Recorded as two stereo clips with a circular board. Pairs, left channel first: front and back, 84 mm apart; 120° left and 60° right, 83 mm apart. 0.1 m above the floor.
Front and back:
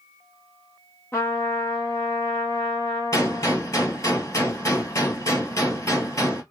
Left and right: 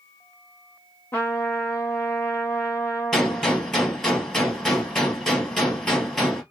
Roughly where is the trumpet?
Ahead left.